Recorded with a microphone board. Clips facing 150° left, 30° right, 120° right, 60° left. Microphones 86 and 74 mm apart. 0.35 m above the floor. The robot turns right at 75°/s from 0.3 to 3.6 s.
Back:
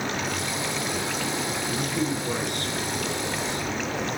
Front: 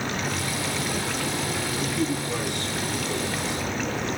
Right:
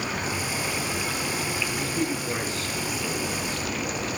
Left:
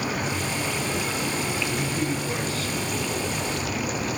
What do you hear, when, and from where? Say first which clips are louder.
1.7 s a man speaking: even, left 1 dB; 110° left, 4.5 m; by 3.6 s 110° right, 4.5 m